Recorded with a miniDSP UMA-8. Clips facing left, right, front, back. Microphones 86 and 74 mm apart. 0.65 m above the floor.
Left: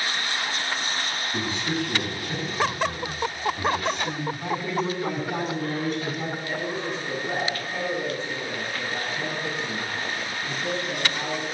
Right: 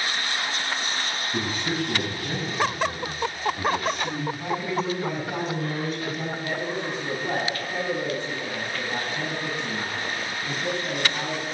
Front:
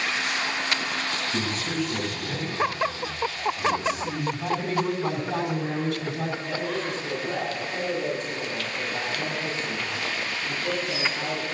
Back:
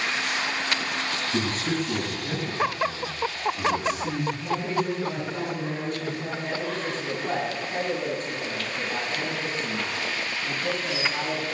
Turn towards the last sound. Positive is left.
turn(degrees=-125)